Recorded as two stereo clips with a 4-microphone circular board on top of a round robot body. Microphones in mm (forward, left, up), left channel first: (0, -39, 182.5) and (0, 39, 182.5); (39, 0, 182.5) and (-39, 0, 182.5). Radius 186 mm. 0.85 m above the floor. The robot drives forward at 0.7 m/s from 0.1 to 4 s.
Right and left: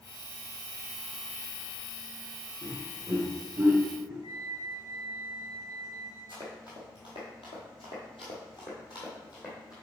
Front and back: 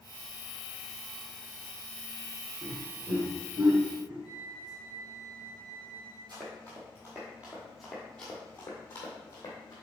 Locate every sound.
2.6 s laughter: 135° left, 1.7 m; by 4.1 s 150° left, 2.5 m
4.2 s a flute: 50° right, 1.0 m
6.3 s running footsteps: 140° right, 1.8 m; by 9.7 s 45° right, 2 m